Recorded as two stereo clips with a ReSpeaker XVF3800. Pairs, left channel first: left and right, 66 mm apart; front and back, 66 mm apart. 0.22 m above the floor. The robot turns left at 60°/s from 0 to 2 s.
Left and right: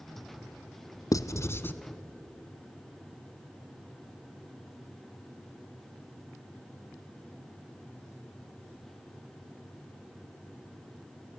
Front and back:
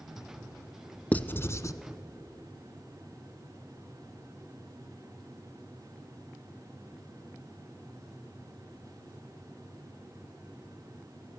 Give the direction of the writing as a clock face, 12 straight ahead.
10 o'clock.